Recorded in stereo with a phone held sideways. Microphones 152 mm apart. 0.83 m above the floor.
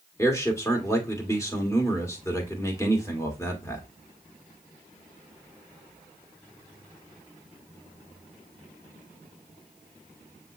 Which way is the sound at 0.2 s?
20° left (ahead or behind).